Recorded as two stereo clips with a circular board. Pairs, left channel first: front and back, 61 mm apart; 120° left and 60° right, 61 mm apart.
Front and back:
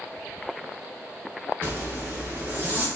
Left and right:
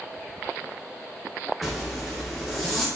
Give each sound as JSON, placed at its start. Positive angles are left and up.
{"t": 1.6, "sound": "a zipper", "azimuth_deg": -155, "distance_m": 0.7}